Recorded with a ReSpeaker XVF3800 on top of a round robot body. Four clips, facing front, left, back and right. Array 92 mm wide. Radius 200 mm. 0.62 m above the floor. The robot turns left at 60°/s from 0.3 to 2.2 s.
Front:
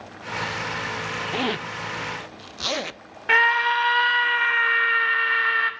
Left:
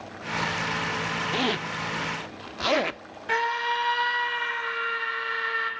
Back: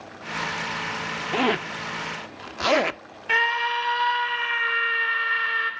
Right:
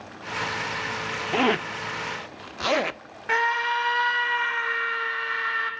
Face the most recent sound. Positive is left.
turn(degrees=-15)